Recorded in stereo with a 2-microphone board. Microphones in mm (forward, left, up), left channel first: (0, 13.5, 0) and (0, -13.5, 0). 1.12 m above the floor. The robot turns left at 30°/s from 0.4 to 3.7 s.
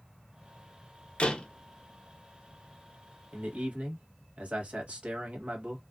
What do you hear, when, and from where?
1.2 s a door slam: 40° left (ahead or behind), 0.6 m; by 1.5 s 35° left (ahead or behind), 0.6 m
3.3 s a man speaking: 65° right (ahead or behind), 1.3 m; by 5.8 s 50° right (ahead or behind), 1.3 m